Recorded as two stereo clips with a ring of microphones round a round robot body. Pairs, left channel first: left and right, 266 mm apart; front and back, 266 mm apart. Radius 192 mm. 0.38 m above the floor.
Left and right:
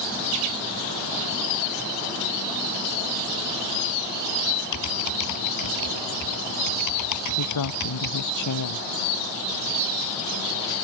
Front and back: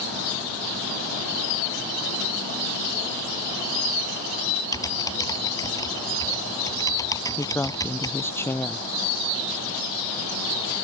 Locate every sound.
4.7 s typing on a keyboard: 80° left
7.4 s a woman speaking: 80° left